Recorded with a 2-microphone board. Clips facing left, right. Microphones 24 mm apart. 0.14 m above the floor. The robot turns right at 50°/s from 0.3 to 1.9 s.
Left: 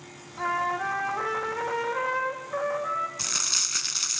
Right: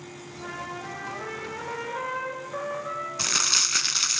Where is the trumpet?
60° left, 4 m; by 3.1 s 135° left, 4 m.